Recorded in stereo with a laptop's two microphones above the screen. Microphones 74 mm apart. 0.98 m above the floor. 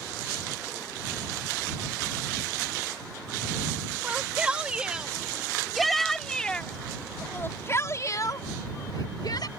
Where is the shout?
20° right (ahead or behind); by 9.5 s 70° left (ahead or behind).